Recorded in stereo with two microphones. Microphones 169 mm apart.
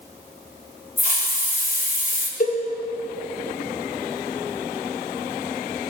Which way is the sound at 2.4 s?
50° left (ahead or behind).